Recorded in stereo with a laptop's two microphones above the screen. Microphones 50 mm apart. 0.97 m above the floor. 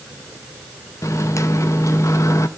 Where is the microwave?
75° left (ahead or behind), 0.6 m.